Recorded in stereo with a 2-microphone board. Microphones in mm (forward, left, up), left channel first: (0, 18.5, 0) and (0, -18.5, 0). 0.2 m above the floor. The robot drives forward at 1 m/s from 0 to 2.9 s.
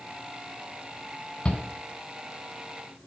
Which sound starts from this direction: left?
A shout, at 1.4 s.